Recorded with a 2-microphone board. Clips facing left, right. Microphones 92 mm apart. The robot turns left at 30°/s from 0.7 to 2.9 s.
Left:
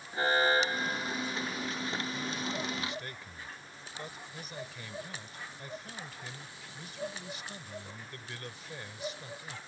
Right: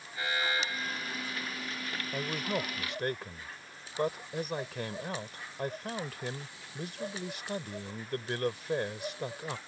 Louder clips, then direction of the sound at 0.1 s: Left 6 dB; 40° left (ahead or behind).